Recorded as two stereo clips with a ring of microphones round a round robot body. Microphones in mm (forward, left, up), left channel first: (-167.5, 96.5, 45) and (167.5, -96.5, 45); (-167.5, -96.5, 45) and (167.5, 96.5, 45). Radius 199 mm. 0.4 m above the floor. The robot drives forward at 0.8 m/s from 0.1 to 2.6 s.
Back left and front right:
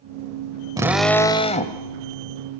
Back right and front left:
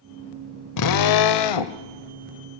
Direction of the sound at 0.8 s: 110° right.